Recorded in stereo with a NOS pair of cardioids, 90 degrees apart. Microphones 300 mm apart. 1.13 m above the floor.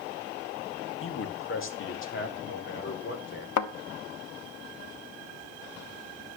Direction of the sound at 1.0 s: 45° left.